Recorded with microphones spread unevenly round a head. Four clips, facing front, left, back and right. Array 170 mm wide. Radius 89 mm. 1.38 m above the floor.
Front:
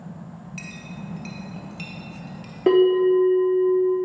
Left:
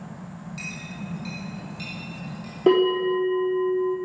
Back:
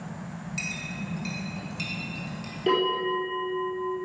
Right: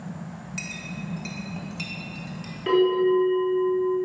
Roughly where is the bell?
Ahead left.